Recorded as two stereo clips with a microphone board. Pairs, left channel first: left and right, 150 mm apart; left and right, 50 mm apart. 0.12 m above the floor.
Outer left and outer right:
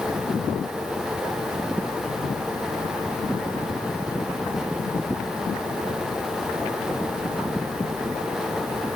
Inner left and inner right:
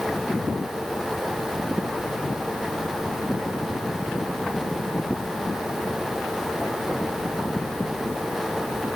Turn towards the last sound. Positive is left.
No sound to turn to.